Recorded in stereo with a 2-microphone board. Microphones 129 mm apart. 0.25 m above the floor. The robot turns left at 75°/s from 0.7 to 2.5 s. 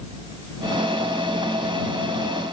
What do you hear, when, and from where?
Only background noise.